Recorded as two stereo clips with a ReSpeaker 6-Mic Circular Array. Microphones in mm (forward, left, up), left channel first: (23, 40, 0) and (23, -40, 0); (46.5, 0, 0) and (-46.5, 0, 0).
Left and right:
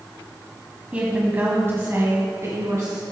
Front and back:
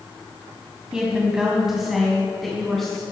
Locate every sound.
0.9 s a woman speaking: 120° right, 1.5 m; by 3.0 s 85° right, 2 m